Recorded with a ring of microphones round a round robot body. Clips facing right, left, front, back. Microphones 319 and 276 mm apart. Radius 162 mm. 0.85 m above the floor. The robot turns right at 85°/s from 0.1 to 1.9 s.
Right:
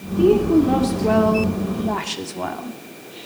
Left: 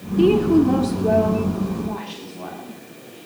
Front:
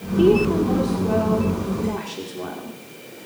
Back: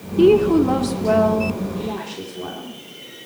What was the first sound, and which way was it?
A woman speaking, 125° left.